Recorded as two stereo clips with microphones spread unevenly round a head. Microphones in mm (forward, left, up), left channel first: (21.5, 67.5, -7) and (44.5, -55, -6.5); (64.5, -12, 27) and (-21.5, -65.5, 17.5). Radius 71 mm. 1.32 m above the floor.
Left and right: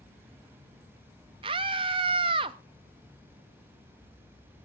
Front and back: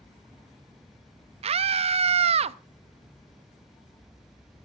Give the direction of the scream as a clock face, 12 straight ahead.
5 o'clock.